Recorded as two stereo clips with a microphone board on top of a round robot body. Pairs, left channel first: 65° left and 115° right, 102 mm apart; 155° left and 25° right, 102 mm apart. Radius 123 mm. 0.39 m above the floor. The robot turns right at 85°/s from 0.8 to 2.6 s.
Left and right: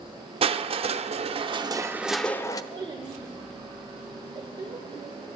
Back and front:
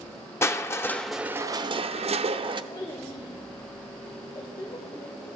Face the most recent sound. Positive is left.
turn(degrees=-150)